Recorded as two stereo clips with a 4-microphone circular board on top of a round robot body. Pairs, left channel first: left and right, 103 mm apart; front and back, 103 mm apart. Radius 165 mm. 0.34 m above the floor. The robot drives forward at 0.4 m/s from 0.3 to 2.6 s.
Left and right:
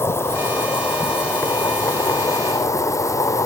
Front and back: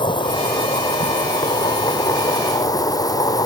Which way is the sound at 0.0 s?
30° left.